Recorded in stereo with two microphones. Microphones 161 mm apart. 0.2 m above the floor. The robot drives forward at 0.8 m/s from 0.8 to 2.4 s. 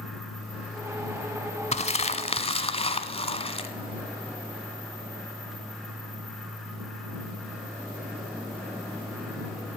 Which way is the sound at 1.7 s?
45° left (ahead or behind).